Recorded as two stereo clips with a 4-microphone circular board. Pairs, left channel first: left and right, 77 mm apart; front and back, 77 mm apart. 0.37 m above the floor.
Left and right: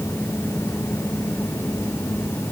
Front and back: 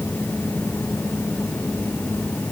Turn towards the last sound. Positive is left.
No sound to turn to.